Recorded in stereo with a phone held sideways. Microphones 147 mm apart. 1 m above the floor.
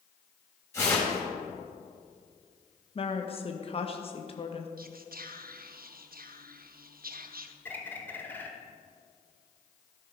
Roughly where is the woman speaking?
Left.